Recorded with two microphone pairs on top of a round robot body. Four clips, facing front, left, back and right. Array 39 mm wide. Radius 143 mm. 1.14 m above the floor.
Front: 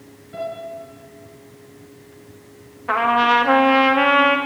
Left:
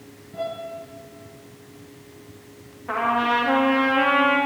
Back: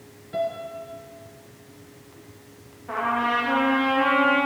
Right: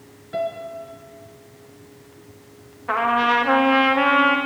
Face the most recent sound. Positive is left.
turn(degrees=-30)